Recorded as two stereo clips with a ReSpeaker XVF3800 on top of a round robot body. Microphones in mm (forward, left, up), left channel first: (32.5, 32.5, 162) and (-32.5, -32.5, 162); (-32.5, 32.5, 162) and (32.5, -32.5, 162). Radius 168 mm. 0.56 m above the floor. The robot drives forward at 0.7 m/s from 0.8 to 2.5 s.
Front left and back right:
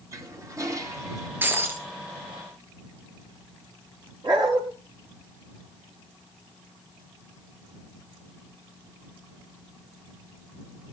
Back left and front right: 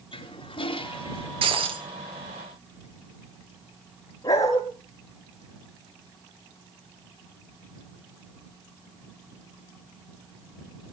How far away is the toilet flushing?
About 3 m.